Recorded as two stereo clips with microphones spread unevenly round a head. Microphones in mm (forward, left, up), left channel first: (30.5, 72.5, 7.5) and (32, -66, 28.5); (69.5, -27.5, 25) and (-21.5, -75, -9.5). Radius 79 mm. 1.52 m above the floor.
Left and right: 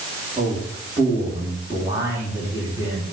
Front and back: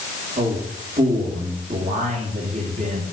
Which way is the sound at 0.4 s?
165° right.